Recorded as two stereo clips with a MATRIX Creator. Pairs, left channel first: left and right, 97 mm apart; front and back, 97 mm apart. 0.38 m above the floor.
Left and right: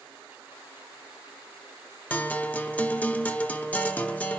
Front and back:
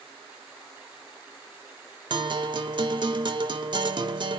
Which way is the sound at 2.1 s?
160° left.